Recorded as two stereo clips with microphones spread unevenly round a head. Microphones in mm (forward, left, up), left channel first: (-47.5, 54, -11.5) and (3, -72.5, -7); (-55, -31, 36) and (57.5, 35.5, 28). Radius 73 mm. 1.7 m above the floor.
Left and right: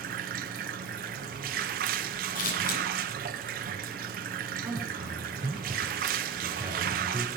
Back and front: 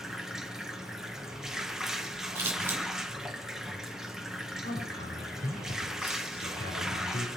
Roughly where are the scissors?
Left.